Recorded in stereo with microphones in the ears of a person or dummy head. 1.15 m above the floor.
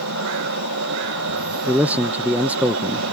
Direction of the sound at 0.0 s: 75° right (ahead or behind).